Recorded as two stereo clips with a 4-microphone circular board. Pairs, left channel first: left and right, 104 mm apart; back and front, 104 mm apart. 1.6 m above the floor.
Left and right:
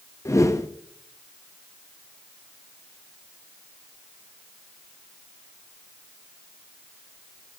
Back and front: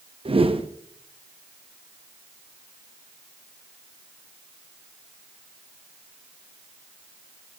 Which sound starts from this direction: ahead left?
A whoosh, at 0.2 s.